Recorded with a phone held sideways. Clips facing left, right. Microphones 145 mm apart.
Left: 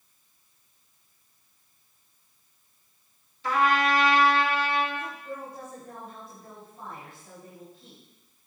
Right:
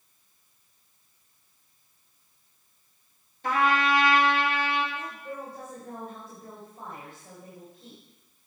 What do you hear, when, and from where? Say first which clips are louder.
3.4 s a trumpet: left 1 dB; 55° right (ahead or behind), 2 m
5.0 s a woman speaking: left 1 dB; 70° right (ahead or behind), 4.5 m